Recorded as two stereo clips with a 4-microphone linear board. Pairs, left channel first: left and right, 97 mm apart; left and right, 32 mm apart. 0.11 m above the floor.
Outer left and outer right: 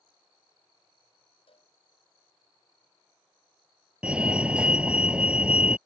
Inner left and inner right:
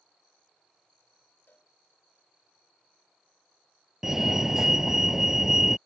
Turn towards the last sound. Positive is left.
turn(degrees=-10)  # may be behind; listen again after turning